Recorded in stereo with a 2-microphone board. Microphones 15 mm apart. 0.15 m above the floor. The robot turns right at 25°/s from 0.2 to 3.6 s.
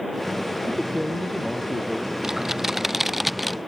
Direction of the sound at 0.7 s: 5° right.